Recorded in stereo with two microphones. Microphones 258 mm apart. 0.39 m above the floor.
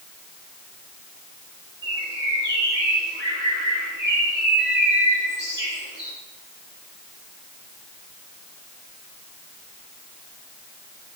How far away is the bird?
About 4 m.